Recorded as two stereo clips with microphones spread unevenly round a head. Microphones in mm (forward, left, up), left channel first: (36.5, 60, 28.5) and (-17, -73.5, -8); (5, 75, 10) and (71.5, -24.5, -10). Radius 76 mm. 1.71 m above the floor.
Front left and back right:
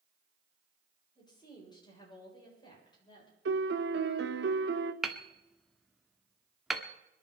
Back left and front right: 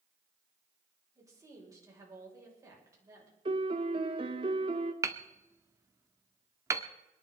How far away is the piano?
About 1.2 m.